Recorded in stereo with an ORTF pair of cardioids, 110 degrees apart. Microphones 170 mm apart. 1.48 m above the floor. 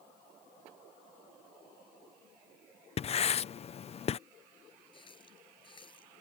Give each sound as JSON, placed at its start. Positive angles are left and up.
{"t": 3.0, "sound": "writing", "azimuth_deg": 40}
{"t": 4.9, "sound": "a running tap", "azimuth_deg": 30}